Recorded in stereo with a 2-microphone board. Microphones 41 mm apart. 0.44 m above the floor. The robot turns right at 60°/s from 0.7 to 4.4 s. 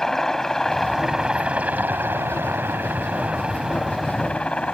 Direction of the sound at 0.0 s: 170° left.